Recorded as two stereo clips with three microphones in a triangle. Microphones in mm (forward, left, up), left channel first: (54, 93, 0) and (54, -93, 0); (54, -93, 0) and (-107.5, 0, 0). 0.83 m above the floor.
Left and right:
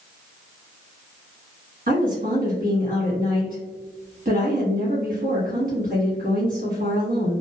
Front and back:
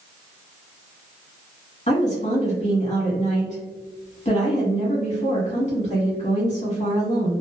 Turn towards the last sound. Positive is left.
turn(degrees=-70)